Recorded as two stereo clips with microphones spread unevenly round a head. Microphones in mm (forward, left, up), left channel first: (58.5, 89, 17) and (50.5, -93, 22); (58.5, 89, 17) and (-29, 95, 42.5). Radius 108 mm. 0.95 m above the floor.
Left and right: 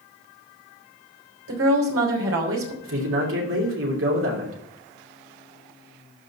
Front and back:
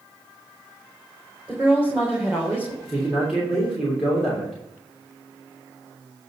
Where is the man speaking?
95° right, 3 m.